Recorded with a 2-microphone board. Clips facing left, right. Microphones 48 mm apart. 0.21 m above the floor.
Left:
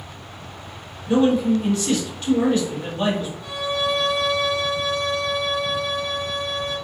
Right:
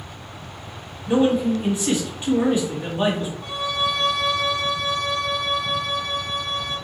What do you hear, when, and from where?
0.0 s an insect: 70° right (ahead or behind), 1.1 m
1.1 s a man speaking: 20° right (ahead or behind), 1.0 m
3.4 s a violin: 50° right (ahead or behind), 1.3 m